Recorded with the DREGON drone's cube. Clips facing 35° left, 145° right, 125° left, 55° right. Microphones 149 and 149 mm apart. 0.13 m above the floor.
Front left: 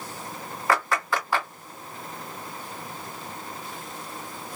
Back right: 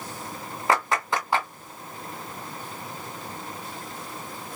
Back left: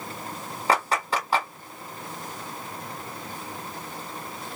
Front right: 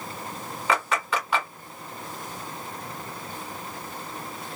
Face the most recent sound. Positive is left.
turn(degrees=155)